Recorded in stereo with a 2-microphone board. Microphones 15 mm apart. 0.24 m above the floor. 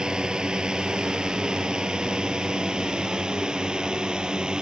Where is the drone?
60° right (ahead or behind).